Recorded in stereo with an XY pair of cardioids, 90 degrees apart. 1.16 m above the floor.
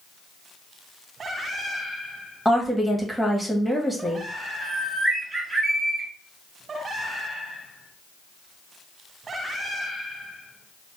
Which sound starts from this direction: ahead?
A woman speaking, at 2.5 s.